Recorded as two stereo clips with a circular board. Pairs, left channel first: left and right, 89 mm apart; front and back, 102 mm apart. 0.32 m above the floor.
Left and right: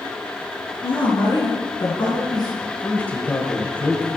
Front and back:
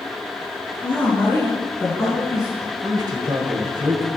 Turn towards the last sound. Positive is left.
turn(degrees=155)